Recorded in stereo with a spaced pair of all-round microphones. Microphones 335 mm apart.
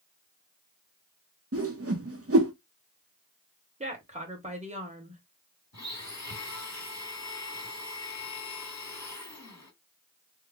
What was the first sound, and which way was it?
A whoosh, 45° right (ahead or behind).